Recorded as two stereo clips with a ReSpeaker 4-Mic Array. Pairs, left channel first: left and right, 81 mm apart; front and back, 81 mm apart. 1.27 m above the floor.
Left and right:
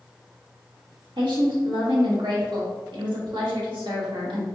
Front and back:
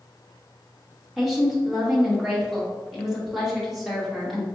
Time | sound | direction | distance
1.2 | a woman speaking | 90° right | 1.1 m